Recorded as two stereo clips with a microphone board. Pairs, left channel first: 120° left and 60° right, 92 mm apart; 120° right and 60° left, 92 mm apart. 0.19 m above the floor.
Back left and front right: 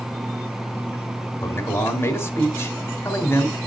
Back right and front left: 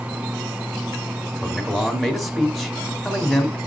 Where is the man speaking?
150° left, 1.4 m.